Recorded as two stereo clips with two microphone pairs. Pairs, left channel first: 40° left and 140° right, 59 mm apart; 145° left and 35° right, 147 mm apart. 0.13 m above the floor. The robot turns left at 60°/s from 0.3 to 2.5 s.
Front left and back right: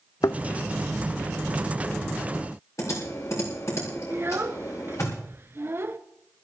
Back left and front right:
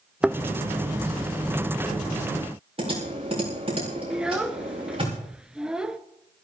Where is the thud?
50° left, 0.6 m; by 0.4 s 45° left, 0.6 m.